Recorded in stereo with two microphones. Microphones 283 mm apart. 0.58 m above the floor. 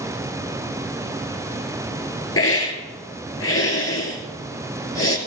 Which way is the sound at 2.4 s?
50° left (ahead or behind).